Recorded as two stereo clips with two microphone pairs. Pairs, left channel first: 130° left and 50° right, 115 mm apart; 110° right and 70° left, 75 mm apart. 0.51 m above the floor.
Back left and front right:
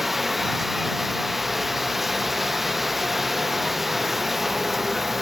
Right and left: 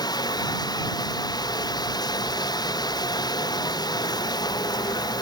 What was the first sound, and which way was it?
Running water, 135° right.